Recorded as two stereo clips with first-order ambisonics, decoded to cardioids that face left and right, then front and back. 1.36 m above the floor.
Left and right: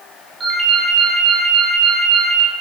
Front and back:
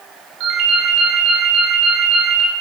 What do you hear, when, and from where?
0.4 s a ringtone: 170° right, 2.5 m